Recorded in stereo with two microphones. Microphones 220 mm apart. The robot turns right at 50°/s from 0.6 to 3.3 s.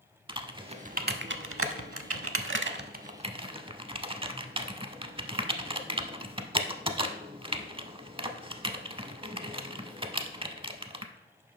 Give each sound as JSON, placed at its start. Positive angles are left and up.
{"t": 0.3, "sound": "typing on a keyboard", "side_deg": -20, "distance_m": 0.5}